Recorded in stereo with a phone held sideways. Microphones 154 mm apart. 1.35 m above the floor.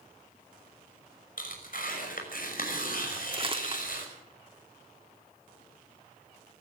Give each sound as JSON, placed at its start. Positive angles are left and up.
{"t": 1.4, "sound": "tearing paper", "side_deg": 65, "distance_m": 5.5}
{"t": 3.3, "sound": "crumpling", "side_deg": -35, "distance_m": 2.5}